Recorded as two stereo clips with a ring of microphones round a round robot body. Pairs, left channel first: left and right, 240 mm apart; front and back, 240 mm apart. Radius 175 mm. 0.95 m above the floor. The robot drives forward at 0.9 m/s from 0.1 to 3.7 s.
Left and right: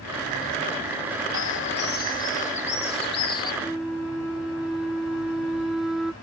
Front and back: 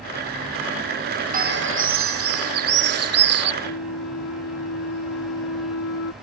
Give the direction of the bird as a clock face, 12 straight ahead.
8 o'clock.